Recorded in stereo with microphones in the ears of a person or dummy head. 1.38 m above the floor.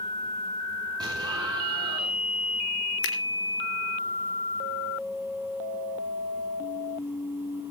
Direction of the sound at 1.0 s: 25° right (ahead or behind).